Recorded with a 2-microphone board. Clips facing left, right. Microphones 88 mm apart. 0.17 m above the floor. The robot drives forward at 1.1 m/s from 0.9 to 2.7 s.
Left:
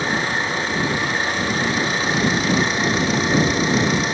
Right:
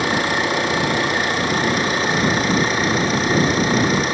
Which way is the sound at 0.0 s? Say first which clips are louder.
Right 3 dB; 70° right (ahead or behind).